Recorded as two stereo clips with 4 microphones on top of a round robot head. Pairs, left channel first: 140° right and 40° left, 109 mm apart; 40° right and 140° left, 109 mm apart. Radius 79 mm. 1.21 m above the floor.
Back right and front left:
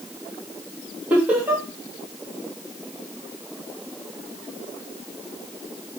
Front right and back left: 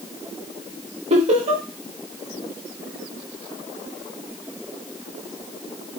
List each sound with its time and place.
1.1 s laughter: 115° left, 2 m